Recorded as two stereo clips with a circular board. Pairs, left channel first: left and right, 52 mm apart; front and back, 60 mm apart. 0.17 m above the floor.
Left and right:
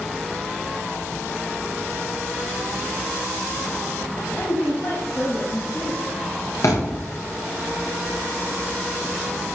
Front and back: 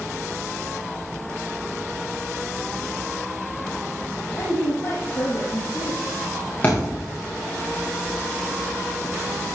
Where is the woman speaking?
45° left, 6 m; by 6.0 s 40° left, 5 m.